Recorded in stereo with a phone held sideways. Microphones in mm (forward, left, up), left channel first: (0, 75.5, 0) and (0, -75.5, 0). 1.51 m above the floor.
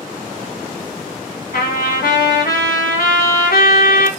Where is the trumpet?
80° left, 1.2 m.